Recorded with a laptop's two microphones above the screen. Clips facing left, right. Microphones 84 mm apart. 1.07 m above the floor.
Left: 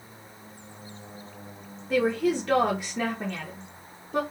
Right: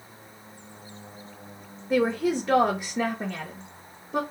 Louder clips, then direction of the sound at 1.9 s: Even; 15° right (ahead or behind).